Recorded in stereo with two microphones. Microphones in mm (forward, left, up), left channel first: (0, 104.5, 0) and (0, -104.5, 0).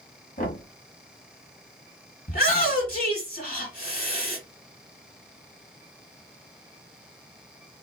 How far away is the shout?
About 2 m.